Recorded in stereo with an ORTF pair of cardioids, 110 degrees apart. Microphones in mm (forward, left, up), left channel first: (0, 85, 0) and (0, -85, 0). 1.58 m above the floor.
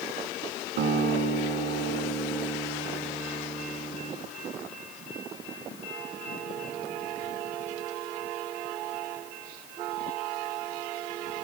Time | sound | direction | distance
0.8 | a guitar | 65° right | 1.7 m